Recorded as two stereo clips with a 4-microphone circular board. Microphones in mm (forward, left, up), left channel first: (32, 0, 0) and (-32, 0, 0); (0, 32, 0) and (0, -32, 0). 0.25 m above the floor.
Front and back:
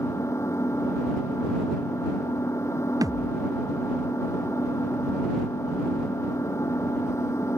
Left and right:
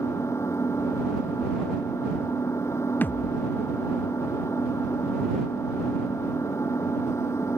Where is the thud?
155° left.